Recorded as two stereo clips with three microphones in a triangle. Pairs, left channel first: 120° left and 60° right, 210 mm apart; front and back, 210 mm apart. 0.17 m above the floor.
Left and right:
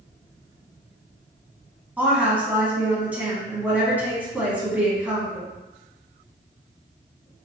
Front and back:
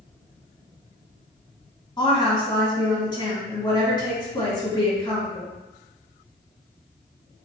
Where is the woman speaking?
10° left, 1.4 m.